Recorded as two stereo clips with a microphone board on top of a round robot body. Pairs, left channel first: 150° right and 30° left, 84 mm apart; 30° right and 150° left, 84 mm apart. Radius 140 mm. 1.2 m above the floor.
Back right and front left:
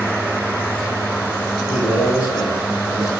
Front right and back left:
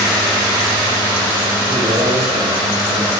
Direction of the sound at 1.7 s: 155° left.